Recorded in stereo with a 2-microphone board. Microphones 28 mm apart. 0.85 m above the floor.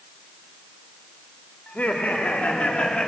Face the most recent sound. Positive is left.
turn(degrees=35)  # may be behind; listen again after turning